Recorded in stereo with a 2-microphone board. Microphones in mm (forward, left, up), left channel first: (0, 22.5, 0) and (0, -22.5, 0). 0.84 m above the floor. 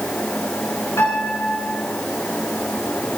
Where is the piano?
80° left, 5 m.